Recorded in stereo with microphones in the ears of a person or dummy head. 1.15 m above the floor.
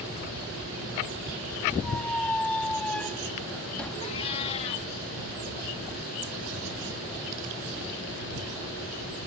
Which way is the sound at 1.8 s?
5° left (ahead or behind).